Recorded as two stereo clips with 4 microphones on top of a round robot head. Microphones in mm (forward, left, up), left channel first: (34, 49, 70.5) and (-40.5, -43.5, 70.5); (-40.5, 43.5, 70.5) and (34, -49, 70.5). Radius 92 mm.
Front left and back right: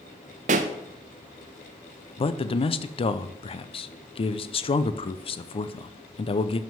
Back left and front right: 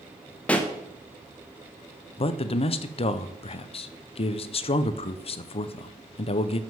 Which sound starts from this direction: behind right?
A pop, at 0.5 s.